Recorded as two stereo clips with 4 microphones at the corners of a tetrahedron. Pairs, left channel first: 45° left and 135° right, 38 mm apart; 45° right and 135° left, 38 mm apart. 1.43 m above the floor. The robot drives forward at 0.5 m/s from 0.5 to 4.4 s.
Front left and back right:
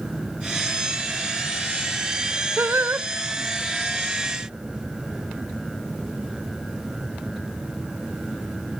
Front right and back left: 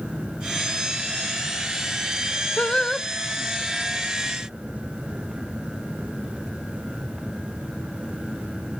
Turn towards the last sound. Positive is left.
turn(degrees=-155)